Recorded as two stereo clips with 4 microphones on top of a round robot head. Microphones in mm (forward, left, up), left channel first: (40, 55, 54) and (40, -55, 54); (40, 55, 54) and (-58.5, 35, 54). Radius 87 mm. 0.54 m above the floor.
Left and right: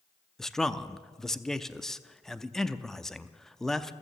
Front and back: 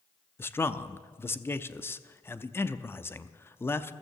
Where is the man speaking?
10° left, 0.7 m.